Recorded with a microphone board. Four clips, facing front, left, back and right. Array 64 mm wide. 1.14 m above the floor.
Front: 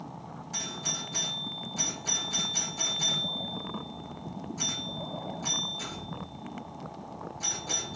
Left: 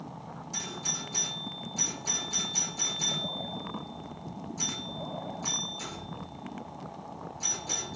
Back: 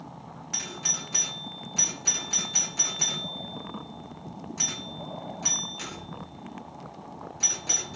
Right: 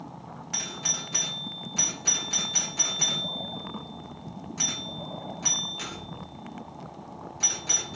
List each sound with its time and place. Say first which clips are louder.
0.5 s a doorbell: right 3 dB, back 1 dB; 120° right, 2 m